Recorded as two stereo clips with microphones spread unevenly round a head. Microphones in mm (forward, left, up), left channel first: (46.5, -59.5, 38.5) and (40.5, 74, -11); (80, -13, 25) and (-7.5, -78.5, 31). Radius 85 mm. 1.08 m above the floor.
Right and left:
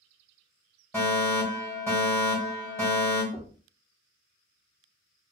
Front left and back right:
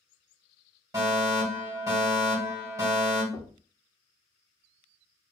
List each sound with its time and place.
0.9 s a fire alarm: straight behind, 1.6 m
3.3 s knocking: 40° right, 0.7 m